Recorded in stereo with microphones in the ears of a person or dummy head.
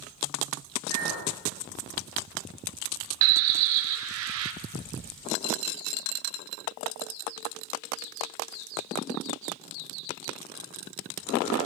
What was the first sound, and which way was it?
A clink, 45° right (ahead or behind).